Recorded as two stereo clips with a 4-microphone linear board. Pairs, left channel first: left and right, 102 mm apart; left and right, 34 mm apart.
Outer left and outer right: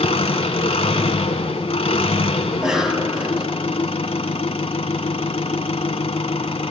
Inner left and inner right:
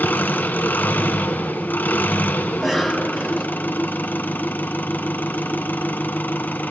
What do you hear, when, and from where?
0.0 s an engine running: 80° left, 1.2 m
2.5 s a cough: 5° right (ahead or behind), 3.5 m